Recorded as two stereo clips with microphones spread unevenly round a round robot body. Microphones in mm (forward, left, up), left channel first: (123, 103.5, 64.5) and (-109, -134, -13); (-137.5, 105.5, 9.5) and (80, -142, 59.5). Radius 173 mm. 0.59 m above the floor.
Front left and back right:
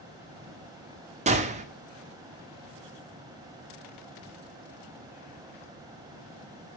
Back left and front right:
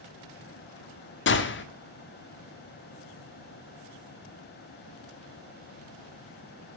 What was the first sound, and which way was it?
A gunshot, 170° left.